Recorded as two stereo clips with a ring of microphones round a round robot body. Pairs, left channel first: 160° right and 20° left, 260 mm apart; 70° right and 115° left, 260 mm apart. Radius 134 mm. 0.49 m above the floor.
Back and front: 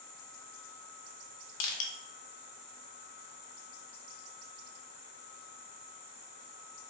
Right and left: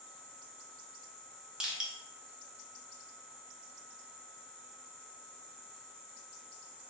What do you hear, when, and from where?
1.6 s crushing: 160° right, 0.6 m